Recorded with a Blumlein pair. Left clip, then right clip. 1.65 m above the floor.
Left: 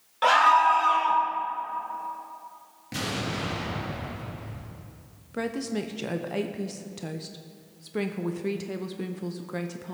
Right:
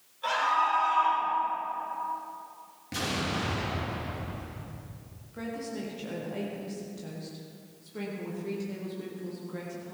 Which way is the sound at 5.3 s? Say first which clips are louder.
Left 6 dB; 30° left.